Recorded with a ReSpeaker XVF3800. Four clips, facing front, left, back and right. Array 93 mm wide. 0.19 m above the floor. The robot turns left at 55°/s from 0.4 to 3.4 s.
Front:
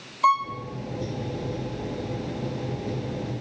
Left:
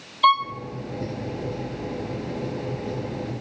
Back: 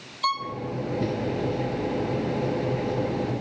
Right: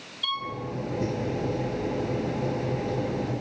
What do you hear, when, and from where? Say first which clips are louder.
0.2 s a violin: left 14 dB, front 6 dB; 65° left, 1.3 m; by 0.5 s 60° left, 1.3 m